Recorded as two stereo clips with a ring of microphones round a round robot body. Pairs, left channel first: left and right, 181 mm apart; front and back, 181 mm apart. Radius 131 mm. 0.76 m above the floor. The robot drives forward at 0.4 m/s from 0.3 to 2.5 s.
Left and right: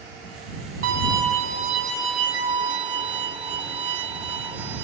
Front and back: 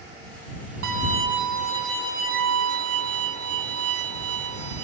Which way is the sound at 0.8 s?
140° right.